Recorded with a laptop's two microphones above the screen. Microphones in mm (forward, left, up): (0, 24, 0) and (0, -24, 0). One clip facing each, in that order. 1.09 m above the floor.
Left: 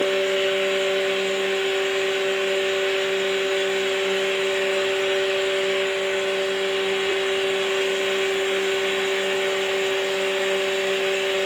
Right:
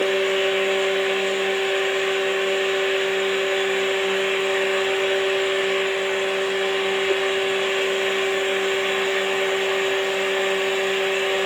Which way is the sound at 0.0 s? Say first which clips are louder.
Right 1 dB; 30° right (ahead or behind).